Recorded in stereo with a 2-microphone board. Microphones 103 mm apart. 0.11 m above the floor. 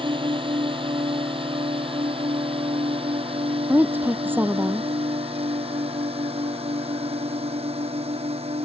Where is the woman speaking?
20° right (ahead or behind).